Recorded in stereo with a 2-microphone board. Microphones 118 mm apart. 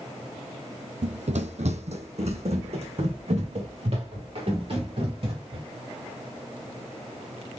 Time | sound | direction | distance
1.0 | running footsteps | 70° right (ahead or behind) | 0.5 m